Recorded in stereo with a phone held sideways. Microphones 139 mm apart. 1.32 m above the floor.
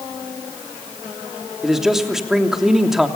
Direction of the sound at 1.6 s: 5° right (ahead or behind).